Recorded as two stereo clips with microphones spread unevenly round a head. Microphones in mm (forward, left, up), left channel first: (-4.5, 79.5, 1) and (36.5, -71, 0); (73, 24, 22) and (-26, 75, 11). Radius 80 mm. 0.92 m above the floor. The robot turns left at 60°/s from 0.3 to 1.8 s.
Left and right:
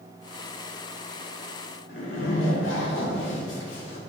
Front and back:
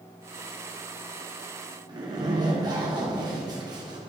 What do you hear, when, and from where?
1.9 s a zipper: 100° left, 2 m